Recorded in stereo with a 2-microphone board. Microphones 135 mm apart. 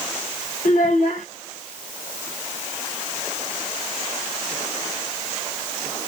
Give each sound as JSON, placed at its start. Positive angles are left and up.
{"t": 0.7, "sound": "a child speaking", "side_deg": 75, "distance_m": 0.9}